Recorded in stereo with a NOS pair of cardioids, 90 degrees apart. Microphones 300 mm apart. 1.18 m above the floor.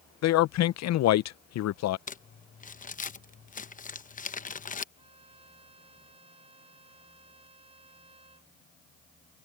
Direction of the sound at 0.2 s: 65° left.